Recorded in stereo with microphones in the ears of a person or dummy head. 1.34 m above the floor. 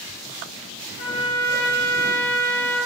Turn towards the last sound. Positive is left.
turn(degrees=55)  # may be behind; listen again after turning